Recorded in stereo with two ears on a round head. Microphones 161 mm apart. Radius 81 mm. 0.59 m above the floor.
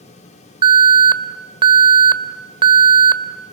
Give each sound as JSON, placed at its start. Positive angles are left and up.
{"t": 0.6, "sound": "an alarm", "side_deg": -30, "distance_m": 1.3}